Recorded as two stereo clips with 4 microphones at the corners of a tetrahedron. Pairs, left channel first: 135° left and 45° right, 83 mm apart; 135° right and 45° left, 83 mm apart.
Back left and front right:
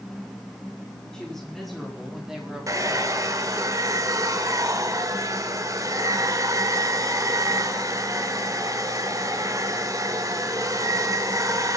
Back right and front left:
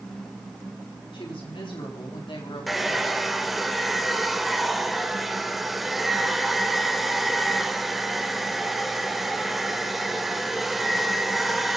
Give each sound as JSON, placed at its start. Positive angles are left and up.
{"t": 1.1, "sound": "a woman speaking", "azimuth_deg": -145, "distance_m": 5.0}
{"t": 2.7, "sound": "a hair dryer", "azimuth_deg": -45, "distance_m": 1.5}